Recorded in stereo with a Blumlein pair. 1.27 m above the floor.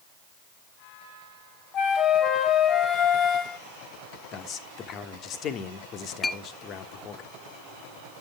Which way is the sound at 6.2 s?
15° left.